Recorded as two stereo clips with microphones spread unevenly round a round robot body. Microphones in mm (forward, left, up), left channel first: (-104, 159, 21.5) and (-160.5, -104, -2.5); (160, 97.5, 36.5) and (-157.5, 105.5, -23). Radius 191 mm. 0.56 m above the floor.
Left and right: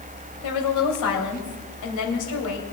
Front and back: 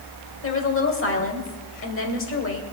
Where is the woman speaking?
50° left, 3 m.